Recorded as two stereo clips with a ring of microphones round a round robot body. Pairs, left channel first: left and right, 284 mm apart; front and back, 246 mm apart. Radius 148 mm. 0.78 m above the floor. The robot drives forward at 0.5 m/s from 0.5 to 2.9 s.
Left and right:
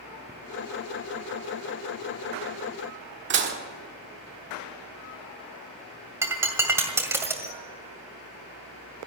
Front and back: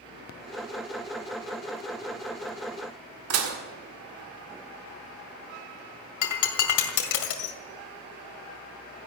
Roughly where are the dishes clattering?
Behind right.